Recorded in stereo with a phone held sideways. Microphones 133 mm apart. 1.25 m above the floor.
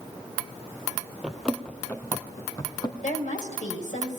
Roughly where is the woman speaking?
Left.